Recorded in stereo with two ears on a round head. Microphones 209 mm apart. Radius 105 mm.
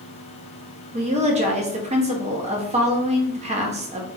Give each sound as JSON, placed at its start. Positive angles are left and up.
{"t": 0.9, "sound": "a woman speaking", "side_deg": -30, "distance_m": 0.8}